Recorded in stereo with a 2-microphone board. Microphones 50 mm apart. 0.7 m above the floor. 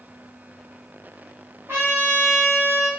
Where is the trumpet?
65° right (ahead or behind), 1.6 m.